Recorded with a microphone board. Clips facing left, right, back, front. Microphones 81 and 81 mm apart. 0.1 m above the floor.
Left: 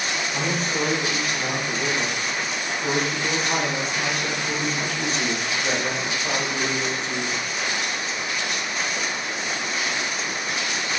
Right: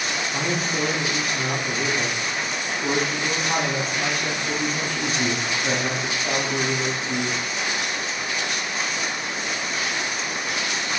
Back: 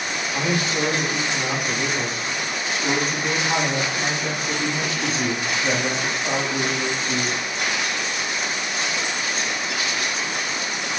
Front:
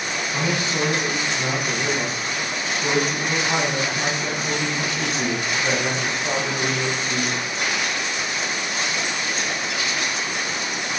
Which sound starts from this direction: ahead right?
A man speaking, at 0.3 s.